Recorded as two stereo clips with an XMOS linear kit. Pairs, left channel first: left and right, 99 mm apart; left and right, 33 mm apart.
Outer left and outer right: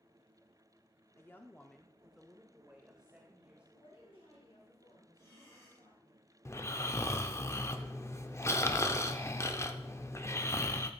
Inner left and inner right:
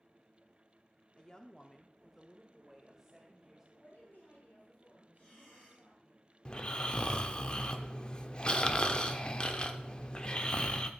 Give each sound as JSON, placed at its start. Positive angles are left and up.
{"t": 1.2, "sound": "a woman speaking", "side_deg": 25, "distance_m": 0.7}
{"t": 3.7, "sound": "a woman speaking", "side_deg": 65, "distance_m": 3.0}
{"t": 5.2, "sound": "breathing", "side_deg": 35, "distance_m": 3.0}
{"t": 6.5, "sound": "snoring", "side_deg": 30, "distance_m": 0.6}